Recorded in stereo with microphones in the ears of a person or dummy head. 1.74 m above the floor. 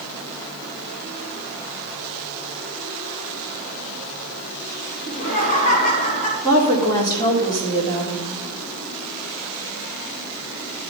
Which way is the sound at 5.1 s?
45° left (ahead or behind).